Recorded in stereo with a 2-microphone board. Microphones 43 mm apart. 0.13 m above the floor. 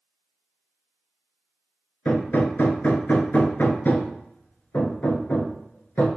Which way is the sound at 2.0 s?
50° left (ahead or behind).